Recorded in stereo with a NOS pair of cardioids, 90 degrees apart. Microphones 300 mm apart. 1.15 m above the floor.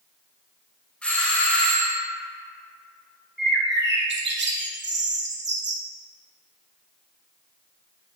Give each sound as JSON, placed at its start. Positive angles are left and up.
{"t": 1.0, "sound": "a doorbell", "azimuth_deg": 5, "distance_m": 2.0}
{"t": 3.4, "sound": "a bird", "azimuth_deg": -35, "distance_m": 1.6}